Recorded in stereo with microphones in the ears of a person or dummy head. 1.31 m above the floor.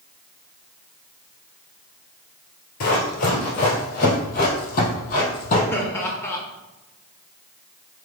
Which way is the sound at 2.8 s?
50° left (ahead or behind).